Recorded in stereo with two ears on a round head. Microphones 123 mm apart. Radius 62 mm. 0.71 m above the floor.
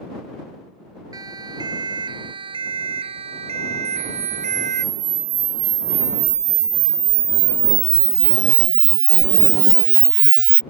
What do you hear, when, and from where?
1.1 s a siren: 30° right (ahead or behind); by 4.8 s 55° right (ahead or behind)
3.9 s a camera shutter: 55° right (ahead or behind)